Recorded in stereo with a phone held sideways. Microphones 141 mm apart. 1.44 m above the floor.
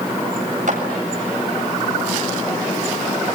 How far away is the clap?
About 7.5 m.